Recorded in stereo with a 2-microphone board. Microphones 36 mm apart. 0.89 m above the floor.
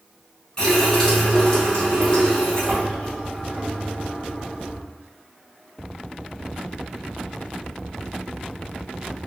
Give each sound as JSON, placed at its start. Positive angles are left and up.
{"t": 0.6, "sound": "a running tap", "side_deg": 20, "distance_m": 1.9}